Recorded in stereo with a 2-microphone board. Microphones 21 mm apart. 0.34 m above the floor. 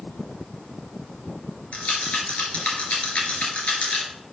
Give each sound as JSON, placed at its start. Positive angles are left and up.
{"t": 1.7, "sound": "a rattle", "side_deg": 80, "distance_m": 2.5}